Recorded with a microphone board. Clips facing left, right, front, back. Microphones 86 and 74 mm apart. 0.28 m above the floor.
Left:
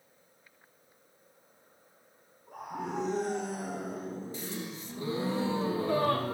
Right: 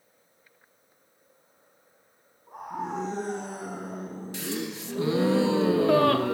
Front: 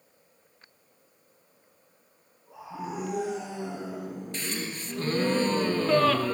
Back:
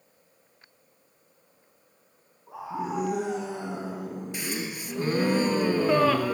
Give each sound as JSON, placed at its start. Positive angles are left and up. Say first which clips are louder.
{"t": 2.5, "sound": "a scream", "louder": "right 4 dB, back 5 dB", "azimuth_deg": -155, "distance_m": 2.5}
{"t": 4.3, "sound": "a gasp", "louder": "right 6 dB, back 1 dB", "azimuth_deg": -100, "distance_m": 0.8}